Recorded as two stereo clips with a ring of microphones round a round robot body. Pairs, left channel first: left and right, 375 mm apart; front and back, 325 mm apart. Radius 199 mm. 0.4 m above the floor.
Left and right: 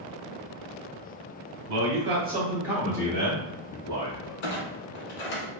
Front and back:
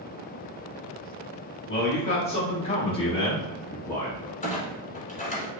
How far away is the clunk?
About 1.0 m.